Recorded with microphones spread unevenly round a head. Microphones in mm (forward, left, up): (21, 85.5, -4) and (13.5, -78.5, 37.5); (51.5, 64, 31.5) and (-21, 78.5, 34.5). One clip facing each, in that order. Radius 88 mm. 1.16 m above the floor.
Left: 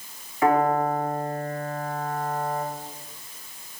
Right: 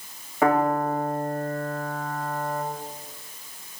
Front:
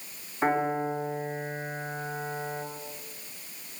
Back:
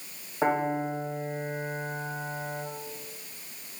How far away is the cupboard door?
No cupboard door in this recording.